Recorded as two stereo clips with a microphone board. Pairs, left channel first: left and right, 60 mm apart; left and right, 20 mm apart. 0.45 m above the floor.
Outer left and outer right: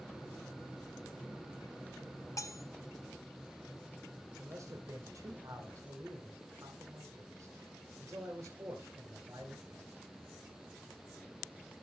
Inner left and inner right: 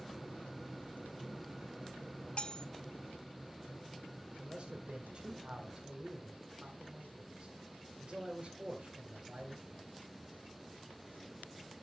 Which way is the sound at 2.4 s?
55° left (ahead or behind).